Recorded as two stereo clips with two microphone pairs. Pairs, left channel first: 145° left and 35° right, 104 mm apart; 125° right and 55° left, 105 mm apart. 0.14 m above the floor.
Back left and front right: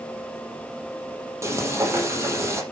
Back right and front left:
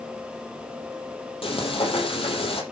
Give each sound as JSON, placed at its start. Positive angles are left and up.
{"t": 1.4, "sound": "frying", "azimuth_deg": -95, "distance_m": 4.5}